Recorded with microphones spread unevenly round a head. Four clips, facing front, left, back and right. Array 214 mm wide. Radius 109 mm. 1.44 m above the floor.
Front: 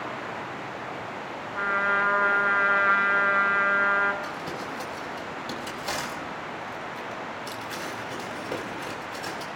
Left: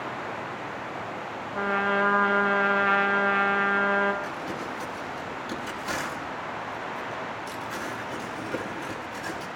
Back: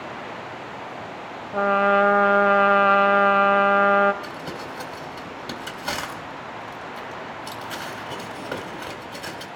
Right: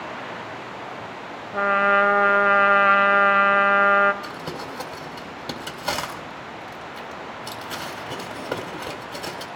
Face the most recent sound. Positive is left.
turn(degrees=-95)